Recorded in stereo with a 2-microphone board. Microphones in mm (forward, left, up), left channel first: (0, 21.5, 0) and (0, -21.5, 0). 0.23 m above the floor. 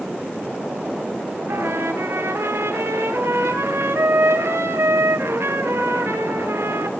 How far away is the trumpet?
About 3.5 m.